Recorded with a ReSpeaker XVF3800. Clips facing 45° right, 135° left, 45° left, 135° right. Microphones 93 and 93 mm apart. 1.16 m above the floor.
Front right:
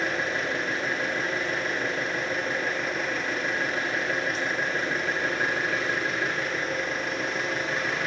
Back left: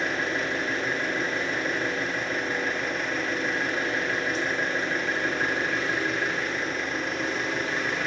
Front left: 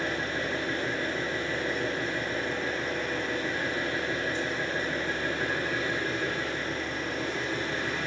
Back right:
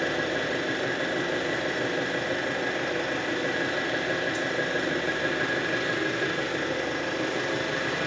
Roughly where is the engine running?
Behind right.